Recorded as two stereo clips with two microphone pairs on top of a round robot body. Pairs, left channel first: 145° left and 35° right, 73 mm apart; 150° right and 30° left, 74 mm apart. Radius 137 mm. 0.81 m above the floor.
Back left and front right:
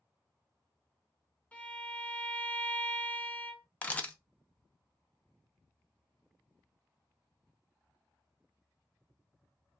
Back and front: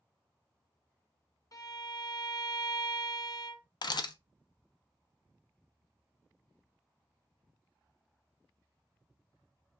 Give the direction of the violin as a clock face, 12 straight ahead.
5 o'clock.